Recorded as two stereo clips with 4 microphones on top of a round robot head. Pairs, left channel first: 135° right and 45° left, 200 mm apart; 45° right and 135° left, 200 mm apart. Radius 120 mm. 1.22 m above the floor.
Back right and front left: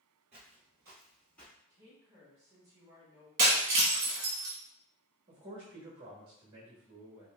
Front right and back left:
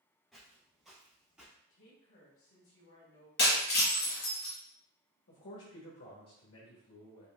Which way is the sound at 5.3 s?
20° right.